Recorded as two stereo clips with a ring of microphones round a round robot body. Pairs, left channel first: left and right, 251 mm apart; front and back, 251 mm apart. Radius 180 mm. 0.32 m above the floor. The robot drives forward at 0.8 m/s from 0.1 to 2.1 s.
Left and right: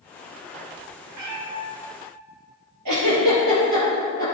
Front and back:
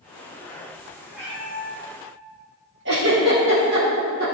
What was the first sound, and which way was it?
A cat meowing, 90° right.